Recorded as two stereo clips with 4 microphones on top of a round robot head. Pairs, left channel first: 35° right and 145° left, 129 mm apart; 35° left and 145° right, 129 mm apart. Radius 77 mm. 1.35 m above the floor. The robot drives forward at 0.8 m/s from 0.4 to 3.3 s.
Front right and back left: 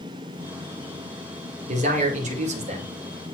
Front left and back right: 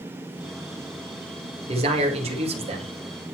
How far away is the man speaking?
About 2.5 m.